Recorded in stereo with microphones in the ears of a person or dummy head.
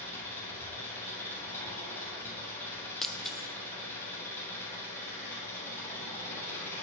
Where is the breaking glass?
Centre (ahead or behind), 0.5 m.